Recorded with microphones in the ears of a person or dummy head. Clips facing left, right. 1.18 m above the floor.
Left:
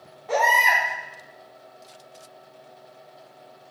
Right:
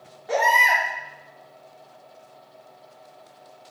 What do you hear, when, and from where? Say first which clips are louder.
0.3 s a baby crying: even; 10° right (ahead or behind), 2.5 m